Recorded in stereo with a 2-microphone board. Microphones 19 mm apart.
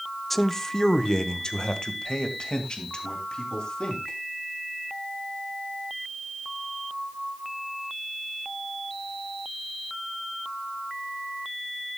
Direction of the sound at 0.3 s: Centre (ahead or behind).